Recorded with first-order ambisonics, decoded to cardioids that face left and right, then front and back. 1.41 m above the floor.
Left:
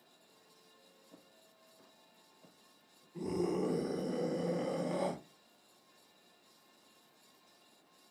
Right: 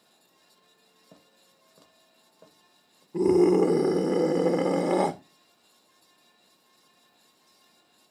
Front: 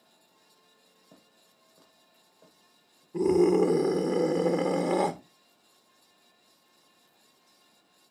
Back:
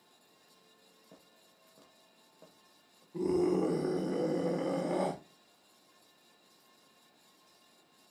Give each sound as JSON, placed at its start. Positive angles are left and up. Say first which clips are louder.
{"t": 1.1, "sound": "footsteps", "louder": "right 6 dB, front 1 dB", "azimuth_deg": -85, "distance_m": 1.9}
{"t": 3.1, "sound": "a scream", "louder": "right 16 dB, front 8 dB", "azimuth_deg": -65, "distance_m": 0.9}